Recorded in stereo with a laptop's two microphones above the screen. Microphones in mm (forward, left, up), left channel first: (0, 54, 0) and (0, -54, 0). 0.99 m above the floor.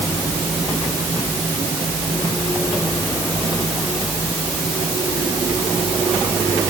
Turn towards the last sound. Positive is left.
No sound to turn to.